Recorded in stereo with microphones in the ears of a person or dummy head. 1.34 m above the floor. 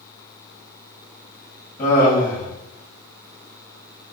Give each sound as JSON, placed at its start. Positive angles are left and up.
{"t": 1.8, "sound": "laughter", "side_deg": 25, "distance_m": 1.0}